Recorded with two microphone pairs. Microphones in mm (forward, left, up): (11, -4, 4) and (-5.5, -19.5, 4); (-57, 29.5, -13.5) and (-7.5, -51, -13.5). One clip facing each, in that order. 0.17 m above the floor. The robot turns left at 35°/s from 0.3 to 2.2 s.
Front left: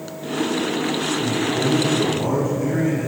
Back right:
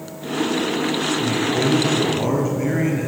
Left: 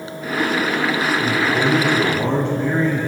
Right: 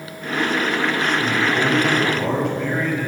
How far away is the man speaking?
About 3 m.